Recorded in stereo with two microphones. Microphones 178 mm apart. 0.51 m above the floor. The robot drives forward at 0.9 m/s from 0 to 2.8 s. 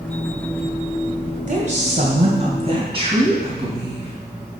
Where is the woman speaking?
45° right (ahead or behind), 2.5 m; by 4.1 s 35° right (ahead or behind), 3.5 m.